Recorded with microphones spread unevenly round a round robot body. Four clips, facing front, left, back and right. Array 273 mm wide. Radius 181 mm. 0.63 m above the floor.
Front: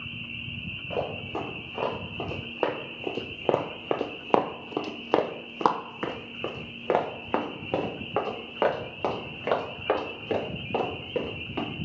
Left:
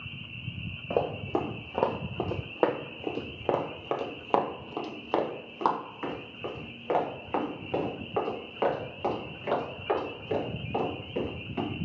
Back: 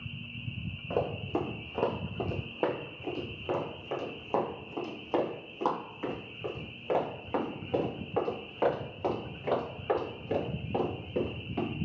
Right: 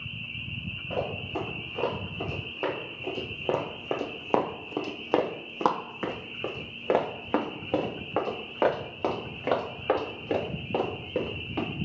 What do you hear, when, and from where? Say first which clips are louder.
0.9 s running footsteps: left 4 dB, even; 150° left, 1.3 m; by 11.7 s 30° right, 4 m